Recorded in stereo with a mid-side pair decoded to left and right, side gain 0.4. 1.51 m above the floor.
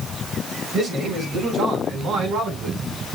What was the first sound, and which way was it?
A man speaking, 60° right.